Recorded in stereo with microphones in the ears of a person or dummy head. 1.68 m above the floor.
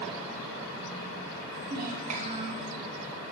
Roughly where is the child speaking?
Right.